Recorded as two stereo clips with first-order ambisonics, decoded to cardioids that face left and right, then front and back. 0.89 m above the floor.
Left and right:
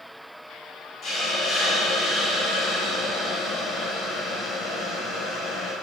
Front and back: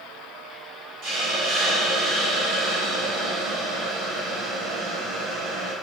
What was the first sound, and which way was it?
A hiss, 145° left.